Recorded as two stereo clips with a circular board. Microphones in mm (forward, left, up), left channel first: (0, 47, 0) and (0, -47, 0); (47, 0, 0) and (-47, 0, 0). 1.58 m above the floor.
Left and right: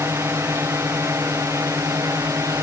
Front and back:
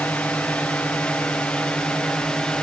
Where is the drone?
60° right; by 2.6 s 70° right.